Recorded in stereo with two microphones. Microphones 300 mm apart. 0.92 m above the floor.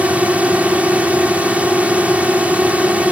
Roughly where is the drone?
Centre.